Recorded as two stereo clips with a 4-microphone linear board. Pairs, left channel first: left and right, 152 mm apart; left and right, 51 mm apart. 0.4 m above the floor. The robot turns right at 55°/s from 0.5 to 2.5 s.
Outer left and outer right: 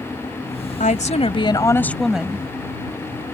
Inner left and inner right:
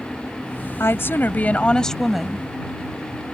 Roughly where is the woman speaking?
Left.